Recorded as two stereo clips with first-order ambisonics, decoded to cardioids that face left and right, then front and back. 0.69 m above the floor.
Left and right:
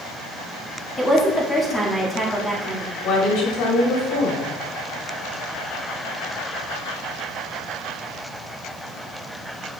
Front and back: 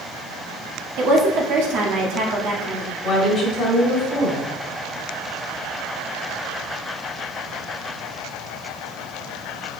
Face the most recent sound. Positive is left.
turn(degrees=65)